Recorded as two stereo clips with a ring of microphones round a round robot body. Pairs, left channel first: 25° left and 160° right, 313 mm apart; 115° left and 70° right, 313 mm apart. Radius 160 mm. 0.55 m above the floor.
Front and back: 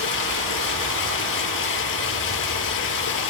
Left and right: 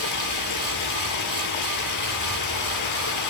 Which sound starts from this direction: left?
Running water, at 0.0 s.